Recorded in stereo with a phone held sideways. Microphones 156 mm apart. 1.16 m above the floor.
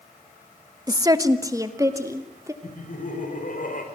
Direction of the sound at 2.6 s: 65° left (ahead or behind).